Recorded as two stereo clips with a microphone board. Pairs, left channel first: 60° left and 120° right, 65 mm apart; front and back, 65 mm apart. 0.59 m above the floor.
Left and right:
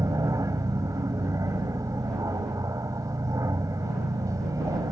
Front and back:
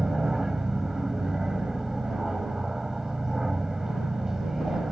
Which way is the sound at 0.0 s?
95° right.